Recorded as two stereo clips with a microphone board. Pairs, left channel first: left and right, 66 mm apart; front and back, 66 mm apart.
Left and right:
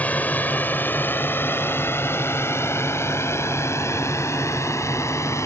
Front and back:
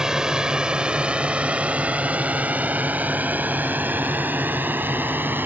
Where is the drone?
110° left; by 5.5 s 125° left.